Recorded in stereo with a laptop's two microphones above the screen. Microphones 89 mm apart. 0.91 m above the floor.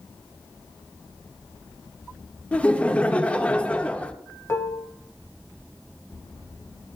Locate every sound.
2.5 s laughter: 15° left (ahead or behind), 0.7 m
4.5 s dishes clattering: 30° left (ahead or behind), 0.6 m